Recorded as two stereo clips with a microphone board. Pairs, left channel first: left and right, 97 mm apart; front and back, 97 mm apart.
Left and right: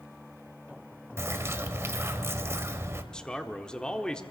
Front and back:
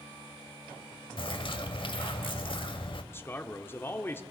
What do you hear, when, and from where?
1.2 s a bird: 25° right, 0.8 m
3.1 s a man speaking: 20° left, 0.8 m